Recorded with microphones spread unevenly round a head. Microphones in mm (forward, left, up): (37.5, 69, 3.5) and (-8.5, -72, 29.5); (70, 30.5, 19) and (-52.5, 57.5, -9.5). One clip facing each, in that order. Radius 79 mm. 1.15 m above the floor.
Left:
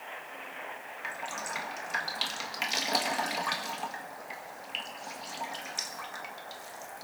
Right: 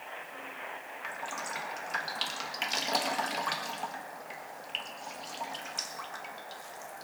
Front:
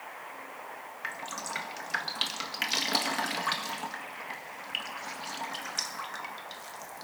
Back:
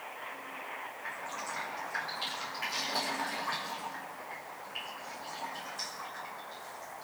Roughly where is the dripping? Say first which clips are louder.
Left 1 dB, front 3 dB; ahead.